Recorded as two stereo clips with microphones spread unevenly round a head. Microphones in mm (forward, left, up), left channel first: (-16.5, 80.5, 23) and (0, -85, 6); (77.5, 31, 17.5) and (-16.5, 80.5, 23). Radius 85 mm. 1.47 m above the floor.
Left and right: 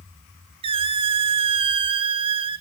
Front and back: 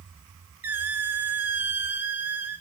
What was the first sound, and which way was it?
A squeak, 135° right.